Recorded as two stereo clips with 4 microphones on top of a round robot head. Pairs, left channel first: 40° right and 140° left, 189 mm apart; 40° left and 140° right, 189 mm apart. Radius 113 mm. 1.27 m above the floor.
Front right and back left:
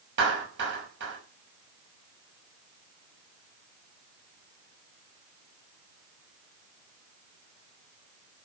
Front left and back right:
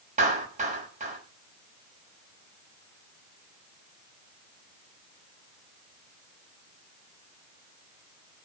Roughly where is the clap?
Behind.